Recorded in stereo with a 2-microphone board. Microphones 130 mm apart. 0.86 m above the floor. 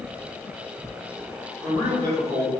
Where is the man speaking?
25° right (ahead or behind), 1.3 m.